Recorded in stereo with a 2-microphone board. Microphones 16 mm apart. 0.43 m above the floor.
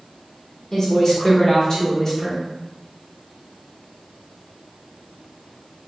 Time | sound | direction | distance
0.7 | a woman speaking | 25° left (ahead or behind) | 1.0 m